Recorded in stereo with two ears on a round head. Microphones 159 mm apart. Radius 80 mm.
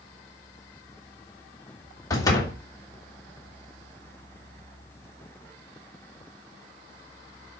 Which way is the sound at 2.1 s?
20° left (ahead or behind).